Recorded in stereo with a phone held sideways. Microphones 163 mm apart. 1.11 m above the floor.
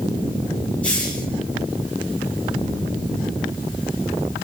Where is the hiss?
10° left (ahead or behind), 3 m.